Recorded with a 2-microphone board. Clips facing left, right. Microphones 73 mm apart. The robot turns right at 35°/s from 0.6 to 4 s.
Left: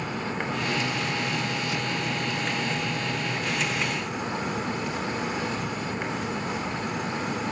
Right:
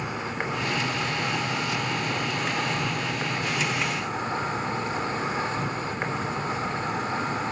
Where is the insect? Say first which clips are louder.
Even; 160° right, 3 m; by 7.5 s 40° right, 3 m.